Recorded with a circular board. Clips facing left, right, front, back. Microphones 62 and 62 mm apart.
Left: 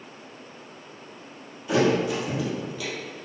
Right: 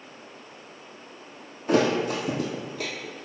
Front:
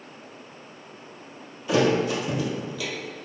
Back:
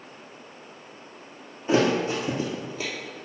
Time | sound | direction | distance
1.7 | a thud | 130° right | 1.5 m